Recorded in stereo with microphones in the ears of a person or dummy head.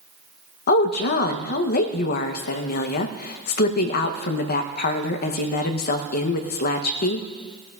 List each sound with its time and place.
0.7 s a woman speaking: 55° left (ahead or behind), 0.8 m